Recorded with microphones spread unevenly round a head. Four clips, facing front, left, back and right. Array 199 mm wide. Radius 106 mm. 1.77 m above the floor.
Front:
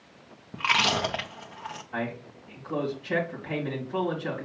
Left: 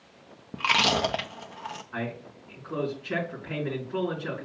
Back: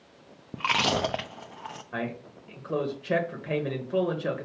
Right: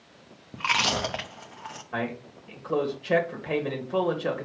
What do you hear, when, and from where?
0.5 s chewing: 150° left, 0.5 m
1.9 s a man speaking: 150° right, 1.9 m